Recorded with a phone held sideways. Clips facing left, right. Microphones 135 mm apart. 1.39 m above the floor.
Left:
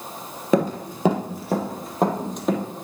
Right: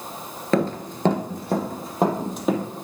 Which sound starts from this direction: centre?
Running footsteps, at 0.5 s.